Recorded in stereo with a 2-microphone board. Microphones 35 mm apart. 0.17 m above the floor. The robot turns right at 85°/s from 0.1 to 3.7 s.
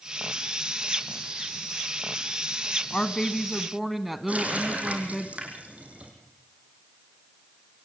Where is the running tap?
40° right (ahead or behind), 4.5 m.